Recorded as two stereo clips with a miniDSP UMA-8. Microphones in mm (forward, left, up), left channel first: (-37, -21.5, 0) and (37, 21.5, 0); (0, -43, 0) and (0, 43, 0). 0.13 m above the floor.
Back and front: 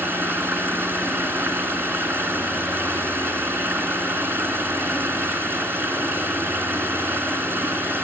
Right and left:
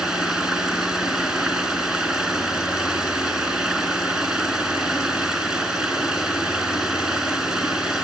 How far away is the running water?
About 1.4 m.